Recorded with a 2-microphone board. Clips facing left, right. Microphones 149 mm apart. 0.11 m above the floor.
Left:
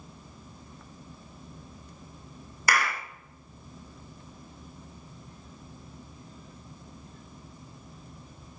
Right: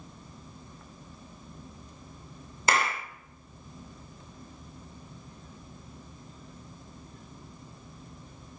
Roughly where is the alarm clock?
No alarm clock in this recording.